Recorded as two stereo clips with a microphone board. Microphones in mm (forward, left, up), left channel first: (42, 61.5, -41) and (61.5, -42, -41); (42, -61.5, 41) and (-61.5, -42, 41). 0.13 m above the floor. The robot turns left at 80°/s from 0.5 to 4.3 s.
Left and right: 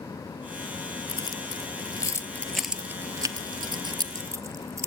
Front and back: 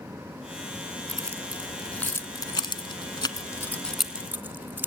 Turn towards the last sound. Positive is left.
turn(degrees=-125)